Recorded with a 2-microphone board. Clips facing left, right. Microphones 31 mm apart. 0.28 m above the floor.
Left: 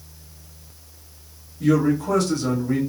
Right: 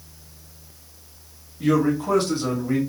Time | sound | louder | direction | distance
1.6 | a man speaking | left 1 dB | 30° right (ahead or behind) | 1.2 m